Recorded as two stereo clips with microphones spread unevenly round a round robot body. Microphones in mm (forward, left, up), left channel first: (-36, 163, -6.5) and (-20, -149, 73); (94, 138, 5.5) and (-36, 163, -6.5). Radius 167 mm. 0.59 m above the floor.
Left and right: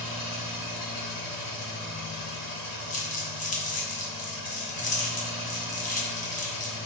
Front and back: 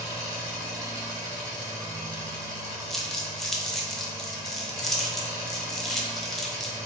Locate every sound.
0.0 s an engine running: 105° left, 1.7 m
2.9 s crumpling: 80° left, 0.6 m